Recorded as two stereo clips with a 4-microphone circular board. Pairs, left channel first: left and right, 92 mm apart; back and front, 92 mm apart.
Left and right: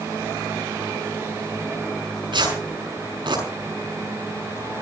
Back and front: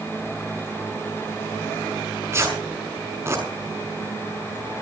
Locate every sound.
2.3 s tearing paper: 60° right, 6 m